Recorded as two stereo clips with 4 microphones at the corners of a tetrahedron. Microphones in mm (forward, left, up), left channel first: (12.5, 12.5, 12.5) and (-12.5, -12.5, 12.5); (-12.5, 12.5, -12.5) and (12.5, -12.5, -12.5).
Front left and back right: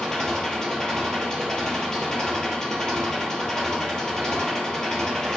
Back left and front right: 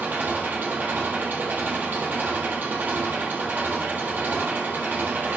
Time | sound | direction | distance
0.0 | an engine running | 30° right | 3 m